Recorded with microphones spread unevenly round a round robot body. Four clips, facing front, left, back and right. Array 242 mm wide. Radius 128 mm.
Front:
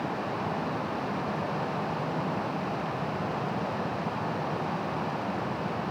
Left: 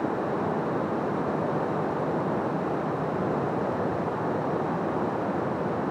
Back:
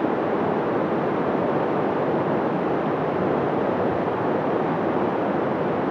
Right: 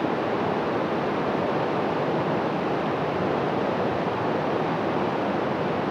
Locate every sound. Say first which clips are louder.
0.0 s running water: right 3 dB, back 10 dB; 170° right